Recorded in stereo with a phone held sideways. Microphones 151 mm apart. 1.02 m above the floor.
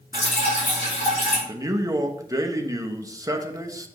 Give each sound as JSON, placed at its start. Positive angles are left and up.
{"t": 0.1, "sound": "dripping", "side_deg": 65, "distance_m": 3.0}
{"t": 1.5, "sound": "a man speaking", "side_deg": -20, "distance_m": 0.8}